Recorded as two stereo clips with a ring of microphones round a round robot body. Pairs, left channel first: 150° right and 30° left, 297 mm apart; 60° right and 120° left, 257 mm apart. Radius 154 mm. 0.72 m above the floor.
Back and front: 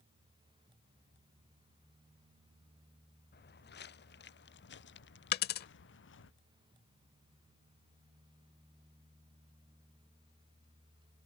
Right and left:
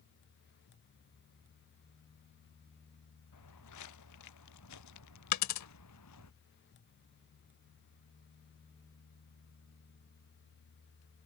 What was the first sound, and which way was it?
Footsteps, 90° right.